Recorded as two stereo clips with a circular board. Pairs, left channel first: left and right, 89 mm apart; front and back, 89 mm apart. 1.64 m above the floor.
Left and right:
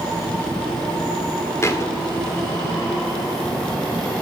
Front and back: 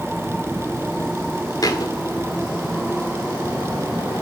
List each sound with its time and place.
1.6 s a thud: 40° left, 2 m